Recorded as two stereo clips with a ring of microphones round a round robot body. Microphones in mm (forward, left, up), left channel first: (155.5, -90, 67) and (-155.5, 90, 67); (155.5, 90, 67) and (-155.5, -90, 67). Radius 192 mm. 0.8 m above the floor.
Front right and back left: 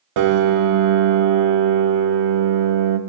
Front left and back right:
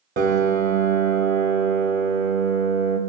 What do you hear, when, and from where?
0.2 s a piano: 145° left, 0.6 m